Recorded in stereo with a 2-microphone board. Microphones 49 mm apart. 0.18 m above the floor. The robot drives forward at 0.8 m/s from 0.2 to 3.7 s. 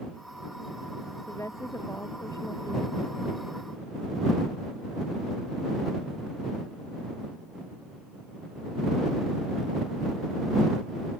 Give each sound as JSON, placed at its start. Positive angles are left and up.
{"t": 1.3, "sound": "a woman speaking", "side_deg": 80}